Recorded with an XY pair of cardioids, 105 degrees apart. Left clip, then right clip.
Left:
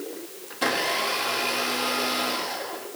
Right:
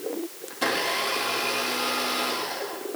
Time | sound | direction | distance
0.5 | a blender | 5° left | 3 m